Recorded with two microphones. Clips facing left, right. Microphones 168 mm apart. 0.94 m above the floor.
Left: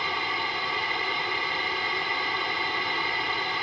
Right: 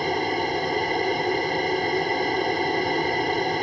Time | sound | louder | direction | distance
0.0 | an aircraft | right 9 dB | 45° right (ahead or behind) | ?